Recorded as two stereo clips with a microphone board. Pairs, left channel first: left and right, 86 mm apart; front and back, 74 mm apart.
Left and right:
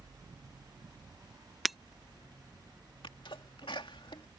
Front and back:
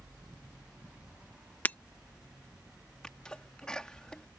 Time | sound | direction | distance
1.6 | breaking glass | 5° right | ?
3.0 | a sneeze | 80° left | ?